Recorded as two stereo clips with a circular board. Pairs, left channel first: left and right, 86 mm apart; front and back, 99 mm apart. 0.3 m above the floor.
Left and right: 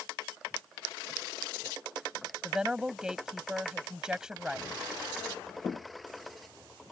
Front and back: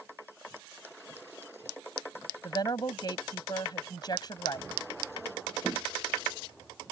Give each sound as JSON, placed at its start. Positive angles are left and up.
{"t": 2.4, "sound": "a woman speaking", "azimuth_deg": -10}